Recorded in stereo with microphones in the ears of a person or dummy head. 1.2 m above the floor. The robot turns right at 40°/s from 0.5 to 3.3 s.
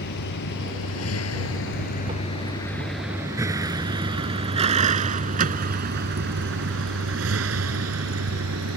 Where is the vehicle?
65° left (ahead or behind); by 8.8 s 90° right.